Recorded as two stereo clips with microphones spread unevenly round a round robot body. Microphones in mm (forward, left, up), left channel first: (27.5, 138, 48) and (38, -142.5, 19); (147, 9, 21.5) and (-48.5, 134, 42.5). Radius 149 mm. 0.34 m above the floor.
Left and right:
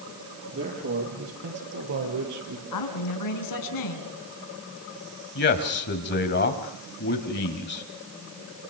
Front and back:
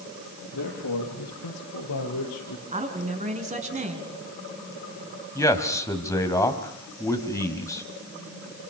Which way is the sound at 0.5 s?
45° right.